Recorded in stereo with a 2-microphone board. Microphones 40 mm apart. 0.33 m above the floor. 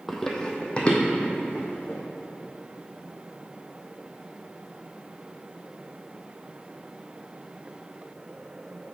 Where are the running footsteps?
5° left (ahead or behind), 0.8 m; by 2.0 s 40° left (ahead or behind), 1.7 m.